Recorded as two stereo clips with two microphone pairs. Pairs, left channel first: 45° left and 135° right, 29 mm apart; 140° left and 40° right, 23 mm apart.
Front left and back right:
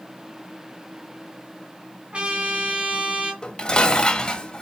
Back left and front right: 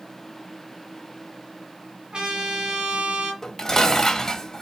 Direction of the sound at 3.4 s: 95° left.